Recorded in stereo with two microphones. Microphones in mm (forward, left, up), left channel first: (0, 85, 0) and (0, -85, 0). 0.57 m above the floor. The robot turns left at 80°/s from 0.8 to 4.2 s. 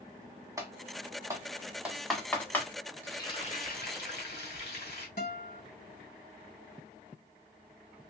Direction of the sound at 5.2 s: 60° left (ahead or behind).